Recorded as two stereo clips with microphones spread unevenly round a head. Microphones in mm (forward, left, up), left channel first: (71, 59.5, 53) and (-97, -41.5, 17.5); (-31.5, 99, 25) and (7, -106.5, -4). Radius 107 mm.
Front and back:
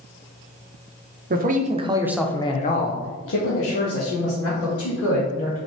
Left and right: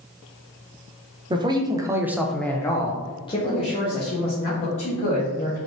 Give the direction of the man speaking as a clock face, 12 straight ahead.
5 o'clock.